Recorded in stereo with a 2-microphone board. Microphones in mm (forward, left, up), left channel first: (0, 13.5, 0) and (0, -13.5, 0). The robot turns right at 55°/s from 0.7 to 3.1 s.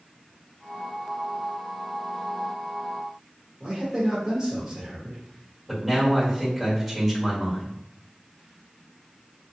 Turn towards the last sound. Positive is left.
turn(degrees=0)  # may be behind; listen again after turning